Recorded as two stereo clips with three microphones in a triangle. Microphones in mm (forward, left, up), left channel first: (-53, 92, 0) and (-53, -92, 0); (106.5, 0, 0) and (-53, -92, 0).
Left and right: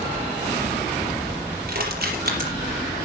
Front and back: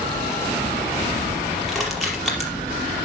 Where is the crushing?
60° right, 5 m.